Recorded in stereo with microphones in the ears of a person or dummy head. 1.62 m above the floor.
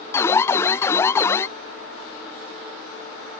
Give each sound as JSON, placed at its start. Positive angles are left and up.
{"t": 0.1, "sound": "an alarm", "side_deg": 10}